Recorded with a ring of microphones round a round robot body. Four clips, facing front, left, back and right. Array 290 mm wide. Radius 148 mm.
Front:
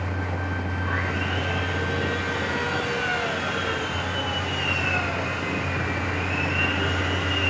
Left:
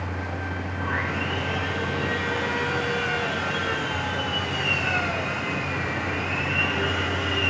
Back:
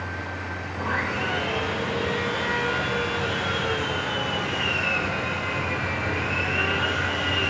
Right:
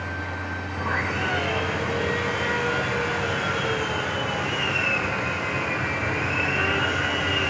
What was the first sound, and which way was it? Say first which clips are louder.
Sawing: right 2 dB, back 4 dB; 125° right.